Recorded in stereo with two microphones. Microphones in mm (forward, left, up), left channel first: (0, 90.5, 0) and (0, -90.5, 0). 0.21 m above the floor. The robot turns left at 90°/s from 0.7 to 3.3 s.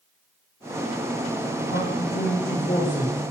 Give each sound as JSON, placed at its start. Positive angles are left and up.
{"t": 1.7, "sound": "a man speaking", "azimuth_deg": 130, "distance_m": 9.0}